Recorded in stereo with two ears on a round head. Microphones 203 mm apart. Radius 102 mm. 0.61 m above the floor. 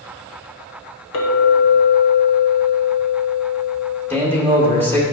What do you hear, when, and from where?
1.1 s a clink: 65° left (ahead or behind), 1.6 m
4.1 s a man speaking: 10° left (ahead or behind), 1.9 m